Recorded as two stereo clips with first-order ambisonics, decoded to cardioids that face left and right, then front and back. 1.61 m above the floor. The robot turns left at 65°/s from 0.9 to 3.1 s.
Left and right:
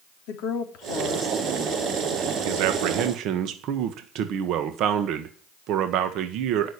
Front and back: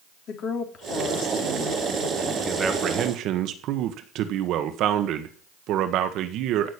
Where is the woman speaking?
55° left, 3.5 m; by 2.4 s 40° right, 3.5 m.